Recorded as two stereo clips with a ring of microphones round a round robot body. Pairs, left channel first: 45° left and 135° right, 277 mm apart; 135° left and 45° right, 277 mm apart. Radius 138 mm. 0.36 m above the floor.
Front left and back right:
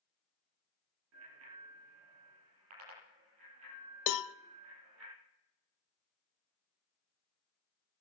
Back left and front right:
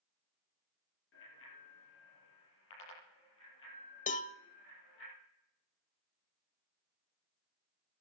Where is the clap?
No clap in this recording.